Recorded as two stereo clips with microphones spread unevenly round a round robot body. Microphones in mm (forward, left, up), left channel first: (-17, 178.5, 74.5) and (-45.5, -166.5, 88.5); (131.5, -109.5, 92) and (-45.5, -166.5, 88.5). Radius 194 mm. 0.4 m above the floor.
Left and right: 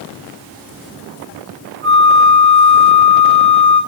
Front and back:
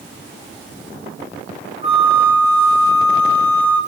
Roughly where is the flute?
Right.